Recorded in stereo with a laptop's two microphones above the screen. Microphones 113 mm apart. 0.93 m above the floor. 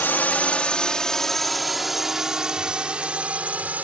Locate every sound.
0.0 s a drone: 20° left (ahead or behind); by 3.9 s 15° right (ahead or behind)